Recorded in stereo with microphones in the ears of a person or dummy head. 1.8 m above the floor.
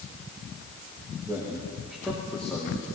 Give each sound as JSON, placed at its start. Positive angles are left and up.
{"t": 1.2, "sound": "a man speaking", "side_deg": -10, "distance_m": 3.0}